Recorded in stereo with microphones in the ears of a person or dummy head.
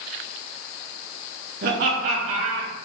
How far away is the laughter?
About 3.5 m.